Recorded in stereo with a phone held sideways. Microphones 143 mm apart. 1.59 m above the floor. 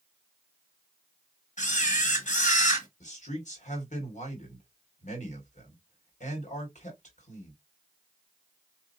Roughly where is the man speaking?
Left.